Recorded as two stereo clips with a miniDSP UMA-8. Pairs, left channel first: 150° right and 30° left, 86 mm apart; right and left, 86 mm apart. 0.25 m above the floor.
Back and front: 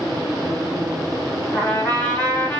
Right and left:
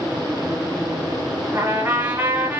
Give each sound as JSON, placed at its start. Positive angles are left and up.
{"t": 1.5, "sound": "a trumpet", "azimuth_deg": 150, "distance_m": 1.7}